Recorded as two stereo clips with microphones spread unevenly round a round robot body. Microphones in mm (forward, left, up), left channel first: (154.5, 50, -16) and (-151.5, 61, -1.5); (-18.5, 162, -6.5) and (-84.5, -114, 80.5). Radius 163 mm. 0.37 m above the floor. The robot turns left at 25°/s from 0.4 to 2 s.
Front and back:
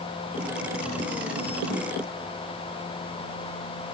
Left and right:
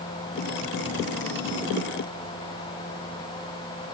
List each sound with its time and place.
Only background noise.